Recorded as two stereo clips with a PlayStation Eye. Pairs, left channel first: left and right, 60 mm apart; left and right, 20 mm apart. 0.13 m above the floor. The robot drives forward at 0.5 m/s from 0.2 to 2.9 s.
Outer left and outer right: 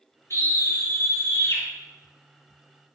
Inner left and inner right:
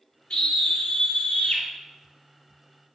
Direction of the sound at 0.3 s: 45° left (ahead or behind).